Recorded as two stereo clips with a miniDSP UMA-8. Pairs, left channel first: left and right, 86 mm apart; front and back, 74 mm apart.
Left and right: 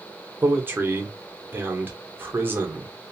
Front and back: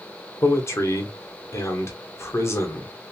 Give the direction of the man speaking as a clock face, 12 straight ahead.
1 o'clock.